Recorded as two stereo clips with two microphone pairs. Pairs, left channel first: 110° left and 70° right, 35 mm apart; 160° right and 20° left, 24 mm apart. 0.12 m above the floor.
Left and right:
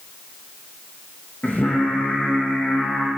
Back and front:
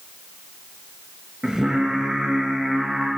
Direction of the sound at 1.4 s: 80° left.